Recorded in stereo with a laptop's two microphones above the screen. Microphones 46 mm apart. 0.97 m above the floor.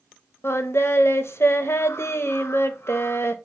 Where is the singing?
60° left (ahead or behind), 0.6 m.